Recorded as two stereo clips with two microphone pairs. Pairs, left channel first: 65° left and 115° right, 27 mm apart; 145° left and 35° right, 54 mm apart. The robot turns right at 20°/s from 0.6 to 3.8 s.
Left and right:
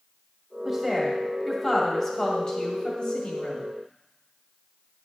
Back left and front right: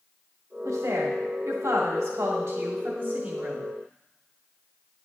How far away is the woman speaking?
About 2.0 m.